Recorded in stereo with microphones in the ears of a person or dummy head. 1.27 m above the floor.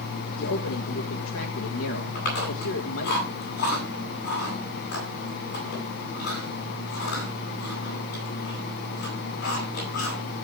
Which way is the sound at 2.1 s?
60° left (ahead or behind).